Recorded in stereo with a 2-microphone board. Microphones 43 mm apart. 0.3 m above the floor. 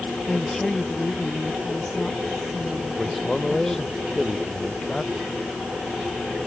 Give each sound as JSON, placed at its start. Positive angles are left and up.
{"t": 0.3, "sound": "a woman speaking", "side_deg": 10}
{"t": 3.0, "sound": "a man speaking", "side_deg": 5}